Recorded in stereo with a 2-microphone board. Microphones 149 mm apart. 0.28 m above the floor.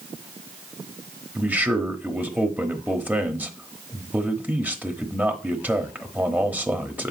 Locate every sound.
1.4 s a man speaking: 10° right (ahead or behind), 0.9 m